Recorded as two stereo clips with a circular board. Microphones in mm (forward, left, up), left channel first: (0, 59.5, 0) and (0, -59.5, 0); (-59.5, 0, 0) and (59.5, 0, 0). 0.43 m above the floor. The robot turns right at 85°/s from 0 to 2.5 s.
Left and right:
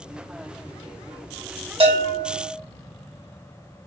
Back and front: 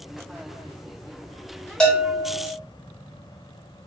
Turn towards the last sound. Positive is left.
turn(degrees=-40)